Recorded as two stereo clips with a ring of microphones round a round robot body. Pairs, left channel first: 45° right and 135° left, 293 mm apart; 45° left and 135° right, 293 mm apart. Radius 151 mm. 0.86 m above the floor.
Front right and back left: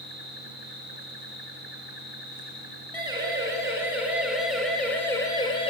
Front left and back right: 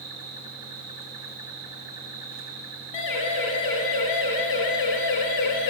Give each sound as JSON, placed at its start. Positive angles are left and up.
{"t": 0.0, "sound": "an insect", "azimuth_deg": -150, "distance_m": 8.0}
{"t": 2.9, "sound": "a siren", "azimuth_deg": 60, "distance_m": 5.0}